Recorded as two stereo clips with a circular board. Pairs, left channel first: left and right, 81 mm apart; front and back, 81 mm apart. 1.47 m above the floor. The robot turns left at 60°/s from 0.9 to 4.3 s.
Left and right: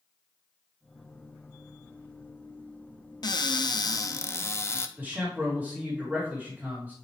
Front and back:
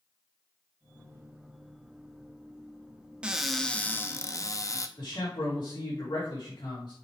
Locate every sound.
3.2 s a cupboard door: 105° left, 0.7 m; by 4.9 s 40° left, 0.7 m
5.0 s a man speaking: 25° right, 2.5 m